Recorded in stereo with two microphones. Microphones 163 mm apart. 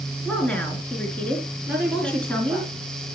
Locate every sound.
0.2 s a woman speaking: 10° left (ahead or behind), 4 m
1.7 s a woman speaking: 5° right (ahead or behind), 6 m